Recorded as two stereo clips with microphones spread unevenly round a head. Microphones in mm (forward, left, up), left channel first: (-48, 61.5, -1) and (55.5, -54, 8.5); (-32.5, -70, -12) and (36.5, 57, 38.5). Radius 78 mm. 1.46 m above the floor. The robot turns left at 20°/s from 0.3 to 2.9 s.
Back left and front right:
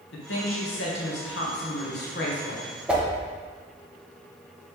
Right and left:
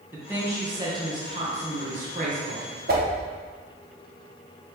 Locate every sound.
0.1 s a woman speaking: 140° left, 1.5 m; by 2.7 s 95° left, 1.5 m
2.9 s a whoosh: 35° left, 1.1 m